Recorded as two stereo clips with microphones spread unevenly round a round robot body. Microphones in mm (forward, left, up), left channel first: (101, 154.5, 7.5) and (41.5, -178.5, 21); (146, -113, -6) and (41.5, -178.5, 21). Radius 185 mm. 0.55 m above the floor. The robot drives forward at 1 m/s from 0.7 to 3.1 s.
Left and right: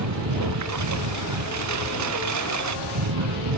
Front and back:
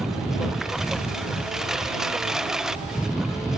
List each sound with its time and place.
0.0 s a lawn mower: 60° right